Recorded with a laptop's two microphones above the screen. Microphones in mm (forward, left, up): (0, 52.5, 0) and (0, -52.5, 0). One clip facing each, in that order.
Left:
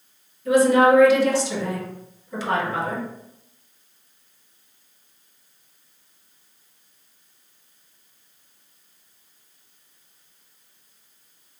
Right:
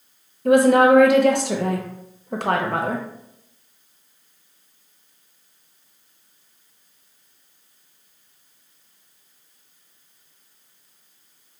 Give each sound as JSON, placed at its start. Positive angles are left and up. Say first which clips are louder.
{"t": 0.5, "sound": "a woman speaking", "louder": "right 2 dB", "side_deg": -60, "distance_m": 0.6}